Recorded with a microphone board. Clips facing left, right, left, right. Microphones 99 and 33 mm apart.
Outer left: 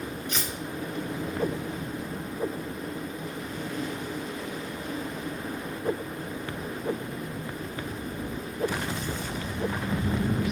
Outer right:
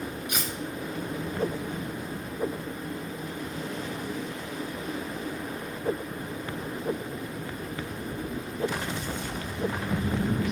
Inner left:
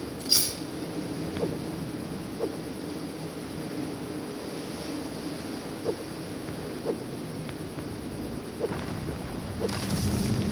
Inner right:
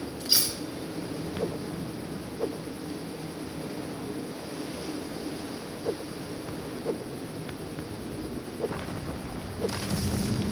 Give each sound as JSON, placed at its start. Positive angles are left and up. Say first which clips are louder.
{"t": 0.3, "sound": "cutlery clinking", "louder": "even, even", "side_deg": -15, "distance_m": 1.2}